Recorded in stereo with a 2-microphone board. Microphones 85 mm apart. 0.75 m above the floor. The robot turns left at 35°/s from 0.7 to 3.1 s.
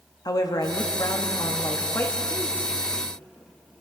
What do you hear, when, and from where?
0.2 s a woman speaking: 90° left, 1.1 m; by 2.5 s 25° left, 1.1 m